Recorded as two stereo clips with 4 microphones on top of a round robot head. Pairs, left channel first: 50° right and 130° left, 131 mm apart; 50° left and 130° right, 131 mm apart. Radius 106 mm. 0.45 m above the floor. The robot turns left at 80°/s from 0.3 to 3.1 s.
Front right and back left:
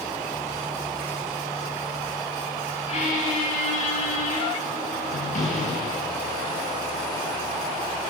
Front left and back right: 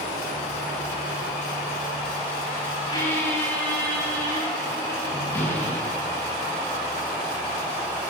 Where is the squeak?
5° right, 6.5 m; by 6.3 s 25° right, 6.5 m.